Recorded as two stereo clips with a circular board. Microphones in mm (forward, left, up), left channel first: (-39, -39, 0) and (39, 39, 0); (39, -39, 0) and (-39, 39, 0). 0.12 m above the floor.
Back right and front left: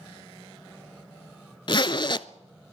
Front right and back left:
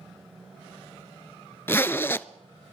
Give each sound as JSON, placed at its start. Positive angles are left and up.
{"t": 1.7, "sound": "a zipper", "azimuth_deg": -110, "distance_m": 0.5}